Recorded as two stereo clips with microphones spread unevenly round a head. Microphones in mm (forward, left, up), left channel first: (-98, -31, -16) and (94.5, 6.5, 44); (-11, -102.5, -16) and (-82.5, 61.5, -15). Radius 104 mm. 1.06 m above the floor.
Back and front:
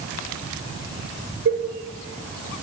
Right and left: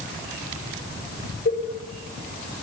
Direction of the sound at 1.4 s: 15° right.